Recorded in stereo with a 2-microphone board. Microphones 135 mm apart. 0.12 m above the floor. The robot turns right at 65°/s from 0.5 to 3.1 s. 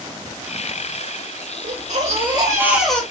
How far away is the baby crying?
About 3 m.